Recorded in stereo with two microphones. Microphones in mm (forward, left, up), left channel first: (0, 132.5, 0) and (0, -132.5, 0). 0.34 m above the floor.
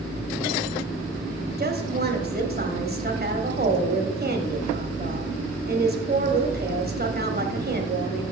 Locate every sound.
1.6 s a woman speaking: 35° right (ahead or behind), 1.4 m